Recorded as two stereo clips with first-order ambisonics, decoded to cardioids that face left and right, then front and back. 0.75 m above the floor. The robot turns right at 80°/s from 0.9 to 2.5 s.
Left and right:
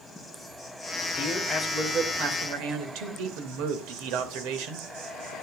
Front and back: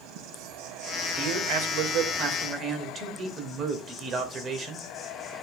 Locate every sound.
0.0 s an insect: 165° left, 3 m; by 5.4 s 70° right, 3 m
1.1 s a man speaking: 135° left, 2.5 m; by 5.3 s 115° right, 2.5 m